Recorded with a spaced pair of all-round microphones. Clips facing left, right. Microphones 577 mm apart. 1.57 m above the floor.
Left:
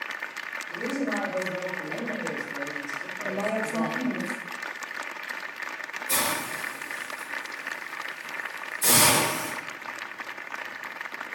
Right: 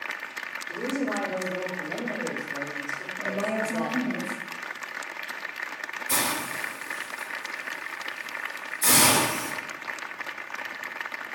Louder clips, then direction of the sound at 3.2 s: Even; 40° right (ahead or behind).